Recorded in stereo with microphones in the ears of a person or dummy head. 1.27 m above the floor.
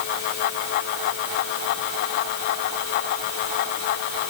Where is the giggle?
I don't hear a giggle.